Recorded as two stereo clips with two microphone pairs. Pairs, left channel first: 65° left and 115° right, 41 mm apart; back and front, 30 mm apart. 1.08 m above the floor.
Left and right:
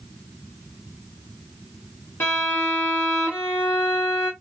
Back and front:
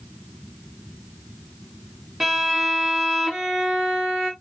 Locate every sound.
2.2 s a violin: 80° left, 2.0 m